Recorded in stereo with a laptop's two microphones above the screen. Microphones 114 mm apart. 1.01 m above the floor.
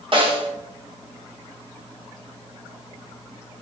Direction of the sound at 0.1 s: 50° right (ahead or behind).